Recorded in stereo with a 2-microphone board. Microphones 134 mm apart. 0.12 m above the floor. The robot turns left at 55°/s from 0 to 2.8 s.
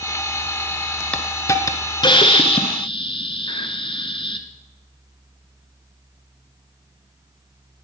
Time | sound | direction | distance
1.1 | a hiss | 165° left | 1.2 m